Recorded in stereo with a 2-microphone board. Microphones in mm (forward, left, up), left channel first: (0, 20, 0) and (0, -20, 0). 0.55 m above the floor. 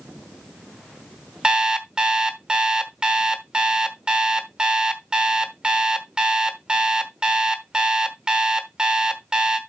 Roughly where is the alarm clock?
Right.